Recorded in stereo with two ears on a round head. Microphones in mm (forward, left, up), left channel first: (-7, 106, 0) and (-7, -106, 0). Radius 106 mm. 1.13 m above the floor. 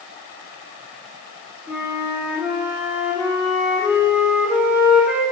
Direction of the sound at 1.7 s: 5° right (ahead or behind).